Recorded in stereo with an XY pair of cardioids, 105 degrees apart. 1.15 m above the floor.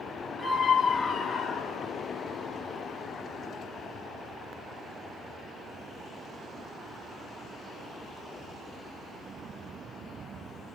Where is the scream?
45° left, 1.9 m; by 1.9 s 80° left, 1.7 m.